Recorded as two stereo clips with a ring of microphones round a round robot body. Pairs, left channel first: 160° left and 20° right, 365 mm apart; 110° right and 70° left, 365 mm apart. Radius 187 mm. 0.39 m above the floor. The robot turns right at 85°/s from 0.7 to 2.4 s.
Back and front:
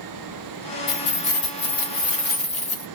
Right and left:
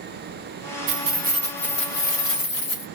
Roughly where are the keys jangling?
Left.